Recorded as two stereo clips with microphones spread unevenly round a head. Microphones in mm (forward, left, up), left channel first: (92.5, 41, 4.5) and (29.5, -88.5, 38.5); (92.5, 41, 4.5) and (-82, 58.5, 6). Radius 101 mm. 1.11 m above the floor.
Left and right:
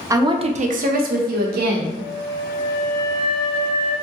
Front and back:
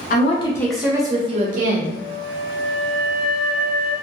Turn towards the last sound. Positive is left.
turn(degrees=150)